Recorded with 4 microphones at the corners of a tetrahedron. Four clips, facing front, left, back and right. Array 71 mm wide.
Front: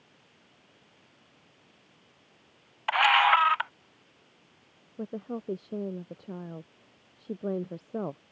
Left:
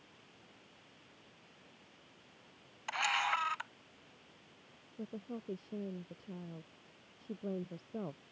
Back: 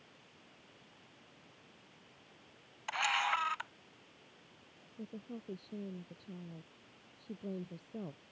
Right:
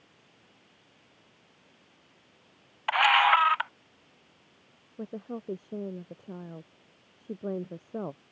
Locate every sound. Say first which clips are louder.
2.9 s a camera shutter: right 13 dB, front 12 dB; 45° right
5.0 s a woman speaking: right 7 dB, front 11 dB; 30° right